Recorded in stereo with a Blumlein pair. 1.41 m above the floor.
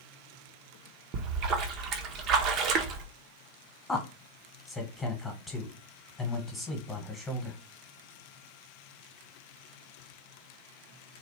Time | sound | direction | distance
1.1 | a splash | 35° right | 0.6 m
3.9 | a man speaking | 10° left | 1.2 m